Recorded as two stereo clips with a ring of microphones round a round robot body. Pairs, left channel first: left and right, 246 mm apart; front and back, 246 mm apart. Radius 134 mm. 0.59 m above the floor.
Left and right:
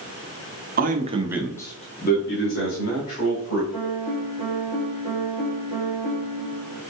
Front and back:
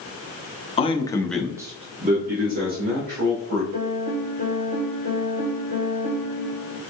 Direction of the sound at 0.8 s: 55° right.